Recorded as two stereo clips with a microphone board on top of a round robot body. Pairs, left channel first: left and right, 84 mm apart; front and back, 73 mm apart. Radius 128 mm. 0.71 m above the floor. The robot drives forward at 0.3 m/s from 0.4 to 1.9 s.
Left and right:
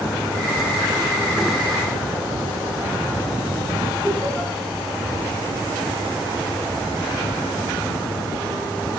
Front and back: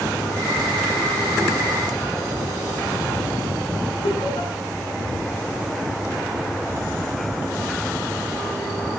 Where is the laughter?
10° left, 6.5 m.